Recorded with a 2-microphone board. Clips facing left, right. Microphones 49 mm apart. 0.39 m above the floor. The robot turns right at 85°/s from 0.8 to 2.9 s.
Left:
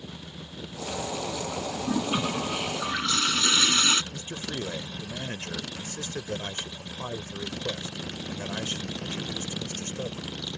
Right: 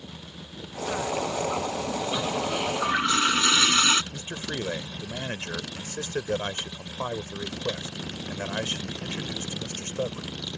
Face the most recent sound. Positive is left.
turn(degrees=-40)  # may be behind; listen again after turning